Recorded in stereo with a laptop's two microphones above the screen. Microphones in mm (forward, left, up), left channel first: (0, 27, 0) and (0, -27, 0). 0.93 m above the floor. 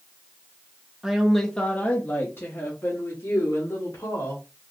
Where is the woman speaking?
15° right (ahead or behind), 0.7 m; by 4.4 s 75° left (ahead or behind), 2 m.